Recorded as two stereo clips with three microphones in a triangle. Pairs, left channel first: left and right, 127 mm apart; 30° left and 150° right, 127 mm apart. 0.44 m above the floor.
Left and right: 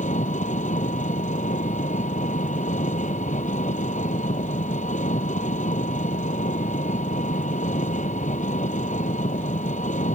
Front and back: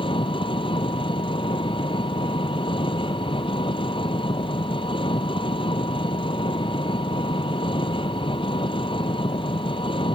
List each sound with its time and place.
0.0 s an engine running: 75° left